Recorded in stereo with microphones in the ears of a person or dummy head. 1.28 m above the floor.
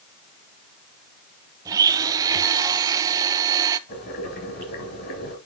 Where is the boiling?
50° left (ahead or behind), 5.5 m.